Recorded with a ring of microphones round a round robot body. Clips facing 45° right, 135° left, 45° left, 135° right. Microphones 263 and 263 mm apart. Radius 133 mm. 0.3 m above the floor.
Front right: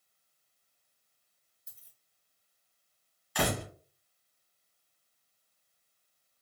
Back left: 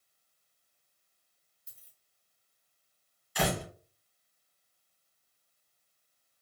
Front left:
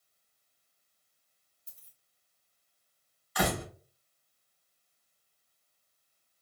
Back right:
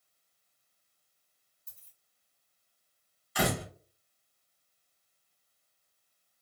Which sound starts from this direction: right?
A door slam, at 3.4 s.